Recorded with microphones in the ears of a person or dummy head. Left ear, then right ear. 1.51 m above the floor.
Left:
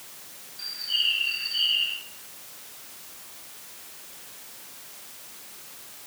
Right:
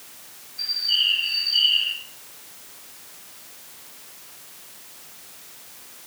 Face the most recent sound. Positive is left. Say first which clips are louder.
# right 5 dB
turn(degrees=-30)  # may be behind; listen again after turning